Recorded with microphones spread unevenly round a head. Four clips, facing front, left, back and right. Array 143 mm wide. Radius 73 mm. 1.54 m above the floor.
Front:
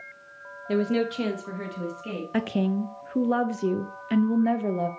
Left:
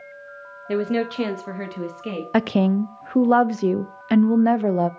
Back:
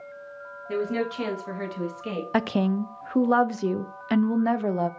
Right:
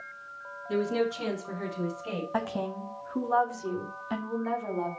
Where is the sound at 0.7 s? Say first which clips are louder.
Left 5 dB, front 3 dB; 60° left, 1.8 m; by 2.2 s 100° left, 2.5 m.